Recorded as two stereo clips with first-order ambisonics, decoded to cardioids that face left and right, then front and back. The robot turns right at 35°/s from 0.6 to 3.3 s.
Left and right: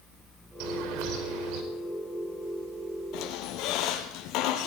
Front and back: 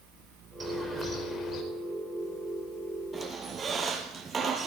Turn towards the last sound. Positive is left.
turn(degrees=110)